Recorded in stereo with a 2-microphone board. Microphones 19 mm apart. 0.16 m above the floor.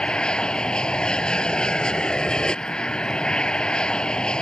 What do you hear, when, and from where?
0.0 s an aircraft: 55° left (ahead or behind)